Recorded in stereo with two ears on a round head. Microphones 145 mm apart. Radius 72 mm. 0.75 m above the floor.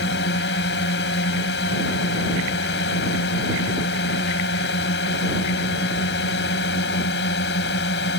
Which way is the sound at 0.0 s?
75° left (ahead or behind).